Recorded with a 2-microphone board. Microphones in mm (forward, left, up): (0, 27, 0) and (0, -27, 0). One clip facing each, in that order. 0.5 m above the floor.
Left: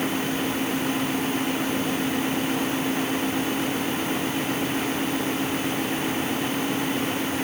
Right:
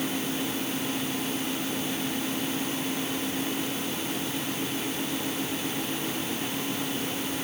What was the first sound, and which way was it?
Only background noise.